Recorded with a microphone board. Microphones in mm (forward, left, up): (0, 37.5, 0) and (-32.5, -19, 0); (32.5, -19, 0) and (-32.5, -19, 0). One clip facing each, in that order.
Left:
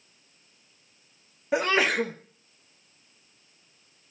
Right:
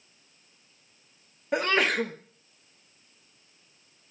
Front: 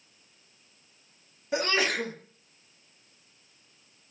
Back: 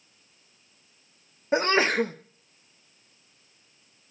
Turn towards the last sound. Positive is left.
turn(degrees=145)